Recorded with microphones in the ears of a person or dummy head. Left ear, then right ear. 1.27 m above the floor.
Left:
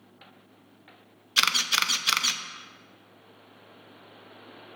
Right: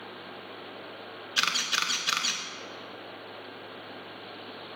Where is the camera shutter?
10° left (ahead or behind), 0.5 m.